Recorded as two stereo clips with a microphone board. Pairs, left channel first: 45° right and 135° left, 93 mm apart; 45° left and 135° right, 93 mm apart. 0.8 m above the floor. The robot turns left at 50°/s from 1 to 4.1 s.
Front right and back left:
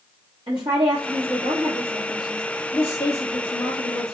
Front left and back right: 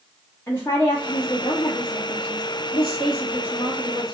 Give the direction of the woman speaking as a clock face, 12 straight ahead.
8 o'clock.